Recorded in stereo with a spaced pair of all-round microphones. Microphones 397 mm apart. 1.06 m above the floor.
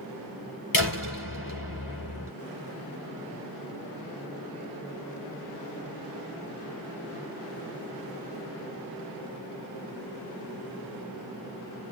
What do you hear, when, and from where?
0.7 s a door slam: 55° left (ahead or behind), 3.5 m